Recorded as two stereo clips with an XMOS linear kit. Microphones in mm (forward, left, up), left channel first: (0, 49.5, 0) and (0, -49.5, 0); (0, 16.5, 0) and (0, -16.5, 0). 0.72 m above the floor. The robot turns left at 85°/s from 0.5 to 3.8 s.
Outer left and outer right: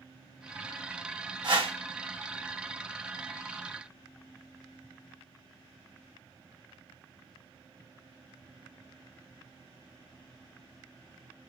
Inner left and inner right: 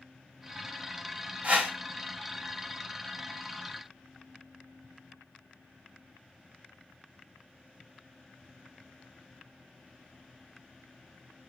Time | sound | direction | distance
1.4 | a whoosh | 50° right (ahead or behind) | 1.0 m